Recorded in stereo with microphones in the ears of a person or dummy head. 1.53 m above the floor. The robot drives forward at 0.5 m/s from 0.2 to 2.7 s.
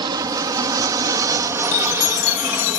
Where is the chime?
75° left (ahead or behind); by 2.8 s 70° left (ahead or behind).